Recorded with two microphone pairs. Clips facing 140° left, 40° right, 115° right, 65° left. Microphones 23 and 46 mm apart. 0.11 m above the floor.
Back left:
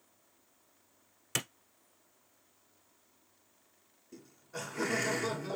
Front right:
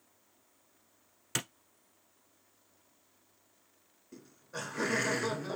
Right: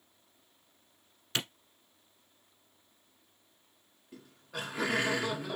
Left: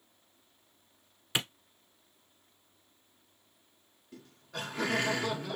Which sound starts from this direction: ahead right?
Laughter, at 4.1 s.